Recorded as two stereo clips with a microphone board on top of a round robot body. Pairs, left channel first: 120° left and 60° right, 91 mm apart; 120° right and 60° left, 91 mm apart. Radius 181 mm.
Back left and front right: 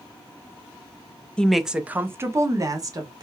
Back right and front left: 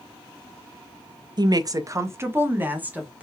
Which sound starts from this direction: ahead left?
A woman speaking, at 1.4 s.